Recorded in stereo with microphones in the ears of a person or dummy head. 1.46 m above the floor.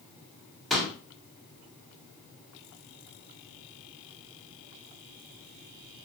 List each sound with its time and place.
0.7 s a pop: centre (ahead or behind), 1.3 m